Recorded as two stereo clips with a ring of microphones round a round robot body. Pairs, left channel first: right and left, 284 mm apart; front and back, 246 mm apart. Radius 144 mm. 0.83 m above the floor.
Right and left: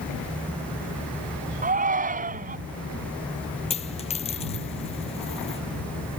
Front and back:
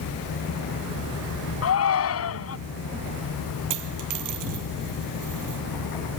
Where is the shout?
25° left.